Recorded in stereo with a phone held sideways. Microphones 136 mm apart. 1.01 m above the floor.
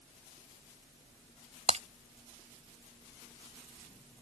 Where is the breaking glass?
50° right (ahead or behind).